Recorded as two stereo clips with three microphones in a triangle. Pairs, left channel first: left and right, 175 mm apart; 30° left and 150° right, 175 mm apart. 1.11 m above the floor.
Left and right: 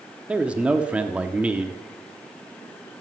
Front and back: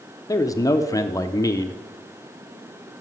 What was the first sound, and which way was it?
A man speaking, 15° right.